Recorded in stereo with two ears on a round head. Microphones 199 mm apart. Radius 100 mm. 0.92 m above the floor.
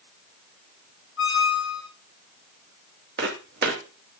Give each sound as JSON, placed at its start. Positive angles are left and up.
{"t": 1.2, "sound": "a squeak", "side_deg": 50, "distance_m": 2.0}
{"t": 3.2, "sound": "footsteps", "side_deg": -50, "distance_m": 2.5}